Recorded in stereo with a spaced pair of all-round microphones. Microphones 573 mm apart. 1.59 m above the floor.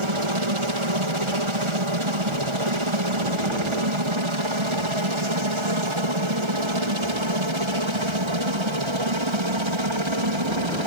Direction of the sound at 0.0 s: 60° right (ahead or behind).